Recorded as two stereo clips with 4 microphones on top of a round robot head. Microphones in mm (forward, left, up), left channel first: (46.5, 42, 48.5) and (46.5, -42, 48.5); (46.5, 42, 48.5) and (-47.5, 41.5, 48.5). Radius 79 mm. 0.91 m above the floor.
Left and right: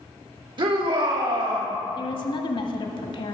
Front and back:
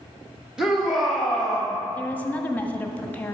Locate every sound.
0.6 s a shout: 95° right, 1.5 m; by 1.7 s 85° right, 3 m
2.0 s a woman speaking: 75° left, 1.1 m